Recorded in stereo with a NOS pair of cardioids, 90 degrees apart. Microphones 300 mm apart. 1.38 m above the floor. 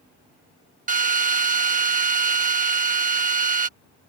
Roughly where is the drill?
Ahead right.